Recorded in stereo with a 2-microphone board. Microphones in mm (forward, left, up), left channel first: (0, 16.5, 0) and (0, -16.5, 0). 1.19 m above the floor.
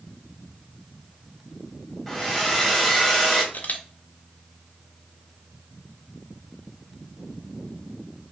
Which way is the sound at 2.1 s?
10° left (ahead or behind).